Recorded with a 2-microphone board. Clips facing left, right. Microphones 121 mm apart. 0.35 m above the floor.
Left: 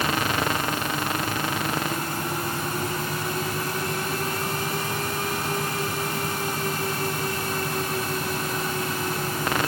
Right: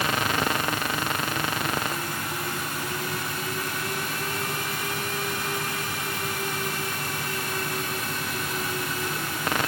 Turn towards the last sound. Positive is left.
No sound to turn to.